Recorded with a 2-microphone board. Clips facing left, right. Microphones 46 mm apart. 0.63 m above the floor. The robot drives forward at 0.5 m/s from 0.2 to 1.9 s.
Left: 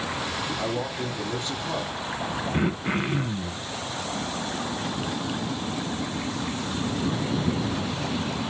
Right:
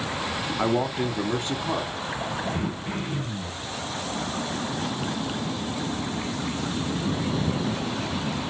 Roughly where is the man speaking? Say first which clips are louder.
Right 4 dB; right.